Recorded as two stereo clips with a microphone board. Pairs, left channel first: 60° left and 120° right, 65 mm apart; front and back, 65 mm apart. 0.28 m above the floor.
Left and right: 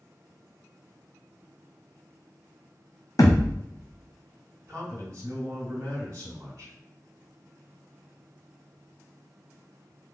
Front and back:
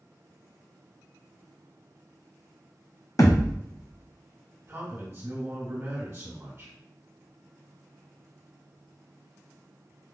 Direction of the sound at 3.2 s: 30° left.